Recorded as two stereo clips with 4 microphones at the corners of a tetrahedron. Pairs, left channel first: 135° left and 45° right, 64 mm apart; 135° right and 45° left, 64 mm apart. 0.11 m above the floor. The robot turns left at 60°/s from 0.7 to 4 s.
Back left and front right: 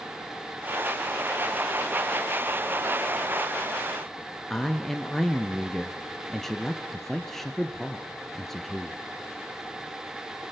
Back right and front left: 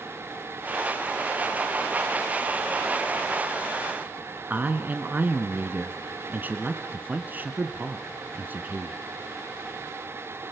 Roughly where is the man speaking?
Ahead left.